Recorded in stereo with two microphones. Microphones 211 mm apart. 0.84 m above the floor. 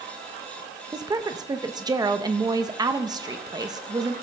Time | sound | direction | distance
0.9 | a woman speaking | 20° right (ahead or behind) | 0.8 m